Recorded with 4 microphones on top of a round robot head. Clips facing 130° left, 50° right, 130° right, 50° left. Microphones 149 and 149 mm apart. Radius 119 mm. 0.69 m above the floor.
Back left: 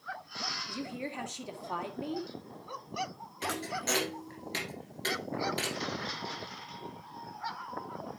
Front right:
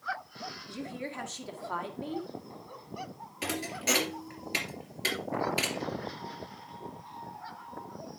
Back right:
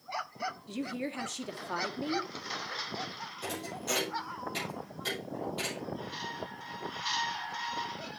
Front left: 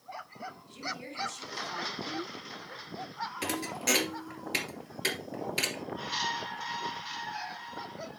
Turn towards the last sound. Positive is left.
turn(degrees=30)